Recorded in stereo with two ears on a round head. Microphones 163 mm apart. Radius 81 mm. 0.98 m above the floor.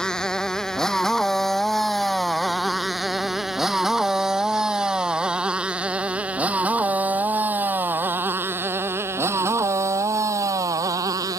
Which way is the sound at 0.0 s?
5° left (ahead or behind).